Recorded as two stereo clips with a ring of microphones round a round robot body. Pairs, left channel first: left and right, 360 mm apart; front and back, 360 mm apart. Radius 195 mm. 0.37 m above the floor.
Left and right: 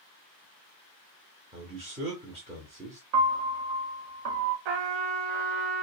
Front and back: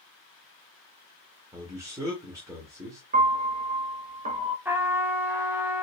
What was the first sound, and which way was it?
A man speaking, 115° right.